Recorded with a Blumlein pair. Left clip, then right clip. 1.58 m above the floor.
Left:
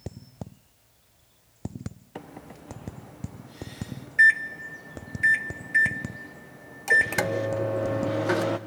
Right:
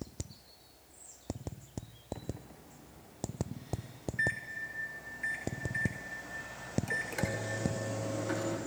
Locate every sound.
2.1 s a microwave: 30° left, 0.9 m